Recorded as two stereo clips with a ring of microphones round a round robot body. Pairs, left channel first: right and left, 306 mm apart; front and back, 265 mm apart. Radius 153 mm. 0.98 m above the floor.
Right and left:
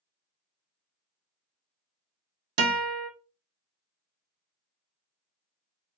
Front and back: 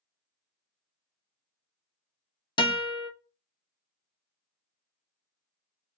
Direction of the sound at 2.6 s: 70° left.